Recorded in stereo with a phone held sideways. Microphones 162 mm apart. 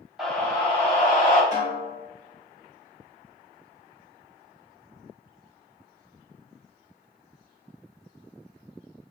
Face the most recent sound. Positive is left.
turn(degrees=80)